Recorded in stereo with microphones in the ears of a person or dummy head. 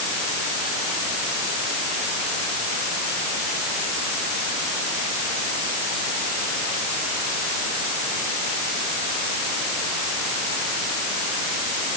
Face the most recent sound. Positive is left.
No sound to turn to.